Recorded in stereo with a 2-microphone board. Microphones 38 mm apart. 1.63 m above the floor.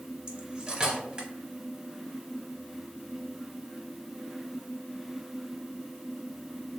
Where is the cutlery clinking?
20° right (ahead or behind), 1.4 m.